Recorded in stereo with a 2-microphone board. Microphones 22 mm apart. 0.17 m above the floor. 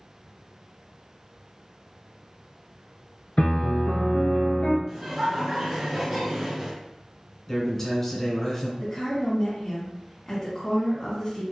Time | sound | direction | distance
3.4 | a piano | 65° left (ahead or behind) | 0.7 m
4.9 | laughter | 20° right (ahead or behind) | 1.9 m
7.5 | a man speaking | 15° left (ahead or behind) | 1.4 m
8.8 | a woman speaking | 15° left (ahead or behind) | 1.6 m